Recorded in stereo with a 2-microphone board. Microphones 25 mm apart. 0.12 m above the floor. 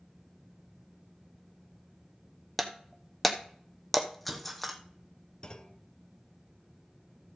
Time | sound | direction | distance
2.6 | breaking glass | centre (ahead or behind) | 1.0 m
5.4 | a clunk | 30° left (ahead or behind) | 0.7 m